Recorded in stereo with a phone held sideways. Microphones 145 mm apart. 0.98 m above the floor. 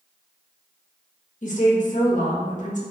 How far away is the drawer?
I don't hear a drawer.